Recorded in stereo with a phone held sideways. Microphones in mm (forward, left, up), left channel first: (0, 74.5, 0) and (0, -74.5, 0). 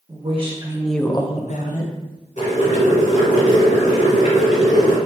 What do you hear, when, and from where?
0.1 s a woman speaking: 50° right (ahead or behind), 1.0 m; by 1.9 s 75° left (ahead or behind), 1.1 m
2.4 s boiling: 60° left (ahead or behind), 1.9 m